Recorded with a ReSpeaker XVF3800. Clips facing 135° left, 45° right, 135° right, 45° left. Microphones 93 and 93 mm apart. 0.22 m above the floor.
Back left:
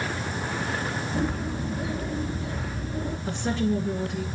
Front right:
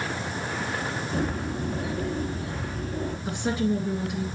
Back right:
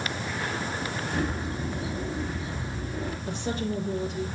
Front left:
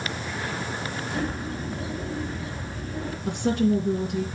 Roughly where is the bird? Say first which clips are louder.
Even, front left 1 dB; ahead right.